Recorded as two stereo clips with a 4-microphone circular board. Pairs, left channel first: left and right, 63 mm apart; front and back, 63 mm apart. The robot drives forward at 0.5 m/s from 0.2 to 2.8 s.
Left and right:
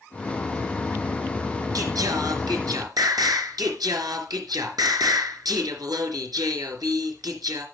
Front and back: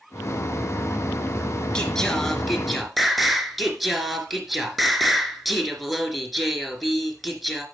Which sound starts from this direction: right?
Singing, at 1.8 s.